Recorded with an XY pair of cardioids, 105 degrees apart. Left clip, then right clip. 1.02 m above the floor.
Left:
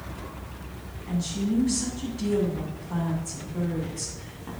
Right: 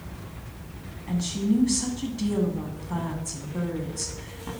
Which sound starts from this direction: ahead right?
A woman speaking, at 1.1 s.